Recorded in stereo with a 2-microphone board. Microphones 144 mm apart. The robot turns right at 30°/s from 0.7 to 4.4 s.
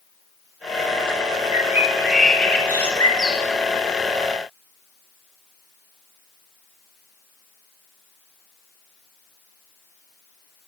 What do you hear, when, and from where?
1.5 s a bird: 25° right, 9 m; by 3.4 s 35° left, 9 m